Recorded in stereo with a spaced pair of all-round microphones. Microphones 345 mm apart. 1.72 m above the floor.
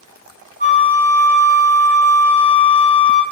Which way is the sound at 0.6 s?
25° right (ahead or behind).